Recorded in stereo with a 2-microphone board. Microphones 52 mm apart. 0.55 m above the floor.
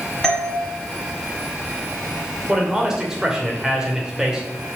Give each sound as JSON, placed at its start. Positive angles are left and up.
{"t": 0.2, "sound": "a doorbell", "side_deg": 5, "distance_m": 1.5}
{"t": 2.5, "sound": "a man speaking", "side_deg": -10, "distance_m": 2.5}